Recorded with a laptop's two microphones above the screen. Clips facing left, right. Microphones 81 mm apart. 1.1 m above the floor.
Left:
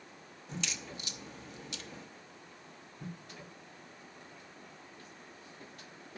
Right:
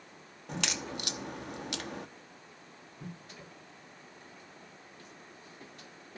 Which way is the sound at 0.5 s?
70° right (ahead or behind).